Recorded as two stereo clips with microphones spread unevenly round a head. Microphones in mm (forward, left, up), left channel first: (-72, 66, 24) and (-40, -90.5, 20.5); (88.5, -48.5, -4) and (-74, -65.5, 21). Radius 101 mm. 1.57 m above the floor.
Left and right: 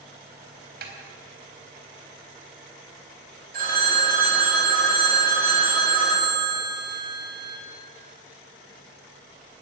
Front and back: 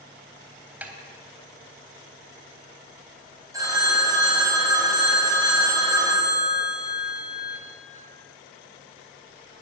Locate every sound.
0.8 s a snare drum: 95° right, 3.5 m
3.5 s a phone ringing: 105° right, 8 m